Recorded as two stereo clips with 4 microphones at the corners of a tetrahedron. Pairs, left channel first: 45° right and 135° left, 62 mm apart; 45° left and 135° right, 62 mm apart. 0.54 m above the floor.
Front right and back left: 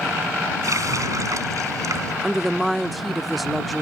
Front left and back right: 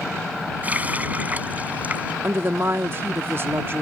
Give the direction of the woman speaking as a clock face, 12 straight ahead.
5 o'clock.